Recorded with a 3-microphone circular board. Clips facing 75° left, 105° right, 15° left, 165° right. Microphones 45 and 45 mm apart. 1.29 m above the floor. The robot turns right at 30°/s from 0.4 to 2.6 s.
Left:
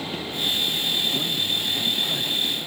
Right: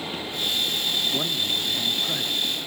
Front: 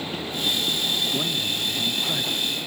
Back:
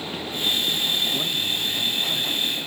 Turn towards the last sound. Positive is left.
turn(degrees=-25)